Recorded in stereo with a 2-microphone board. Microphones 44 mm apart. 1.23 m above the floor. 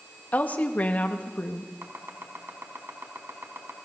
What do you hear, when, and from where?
0.3 s a woman speaking: 35° left (ahead or behind), 1.8 m
1.8 s chopping: 70° right (ahead or behind), 3 m